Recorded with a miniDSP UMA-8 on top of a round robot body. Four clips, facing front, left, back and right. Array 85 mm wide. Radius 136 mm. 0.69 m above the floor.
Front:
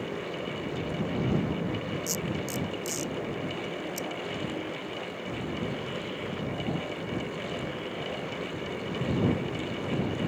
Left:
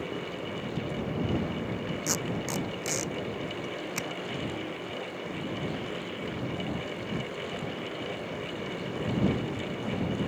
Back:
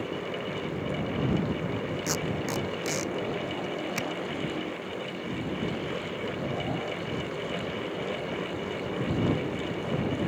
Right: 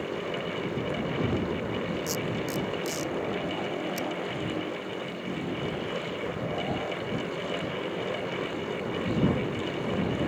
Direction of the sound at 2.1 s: 145° left.